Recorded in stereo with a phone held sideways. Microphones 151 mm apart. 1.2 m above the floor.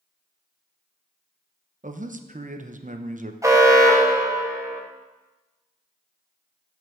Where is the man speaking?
55° right (ahead or behind), 0.8 m.